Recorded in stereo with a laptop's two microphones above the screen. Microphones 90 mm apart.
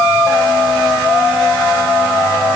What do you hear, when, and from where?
Only background noise.